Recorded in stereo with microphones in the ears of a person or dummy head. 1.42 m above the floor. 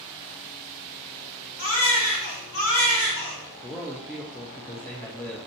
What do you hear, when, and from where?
1.6 s a baby crying: 70° left (ahead or behind), 1.5 m
3.6 s a man speaking: 15° left (ahead or behind), 0.6 m